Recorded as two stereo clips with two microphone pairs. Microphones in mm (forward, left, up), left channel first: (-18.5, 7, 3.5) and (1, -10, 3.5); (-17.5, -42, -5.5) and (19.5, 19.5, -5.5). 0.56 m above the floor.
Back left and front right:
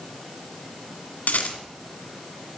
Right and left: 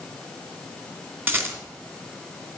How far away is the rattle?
About 2 m.